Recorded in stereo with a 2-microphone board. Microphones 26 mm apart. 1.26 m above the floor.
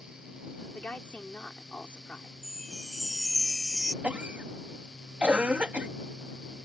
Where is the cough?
65° right (ahead or behind).